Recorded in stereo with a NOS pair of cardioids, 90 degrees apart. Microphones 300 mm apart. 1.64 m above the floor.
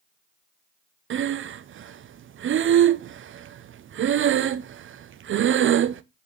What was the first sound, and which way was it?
Breathing, 45° right.